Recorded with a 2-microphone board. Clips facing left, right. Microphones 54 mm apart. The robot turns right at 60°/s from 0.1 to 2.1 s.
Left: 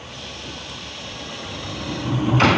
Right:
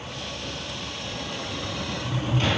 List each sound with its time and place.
1.4 s a sliding door: 65° left, 1.1 m; by 2.6 s 105° left, 1.1 m